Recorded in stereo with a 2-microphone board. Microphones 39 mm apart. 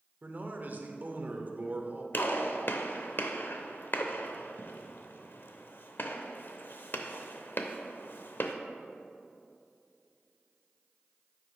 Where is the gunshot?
60° left (ahead or behind), 0.7 m.